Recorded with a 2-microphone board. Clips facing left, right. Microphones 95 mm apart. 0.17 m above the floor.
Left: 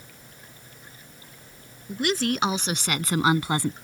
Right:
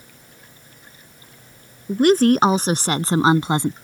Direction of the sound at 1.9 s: 45° right (ahead or behind).